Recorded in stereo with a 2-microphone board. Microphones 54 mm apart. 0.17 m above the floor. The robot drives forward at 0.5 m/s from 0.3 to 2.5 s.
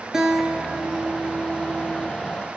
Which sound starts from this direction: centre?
A guitar, at 0.1 s.